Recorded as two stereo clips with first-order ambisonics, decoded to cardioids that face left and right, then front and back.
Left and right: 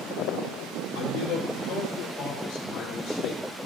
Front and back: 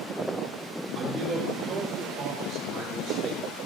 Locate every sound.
0.9 s a man speaking: 100° left, 4.5 m; by 3.4 s 125° left, 4.5 m